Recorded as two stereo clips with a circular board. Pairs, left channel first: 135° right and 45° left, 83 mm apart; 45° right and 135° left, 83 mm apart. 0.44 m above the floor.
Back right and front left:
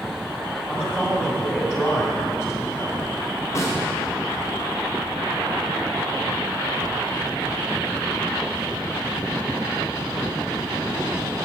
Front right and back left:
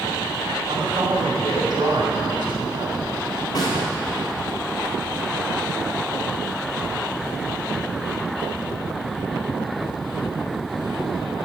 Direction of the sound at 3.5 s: 85° right.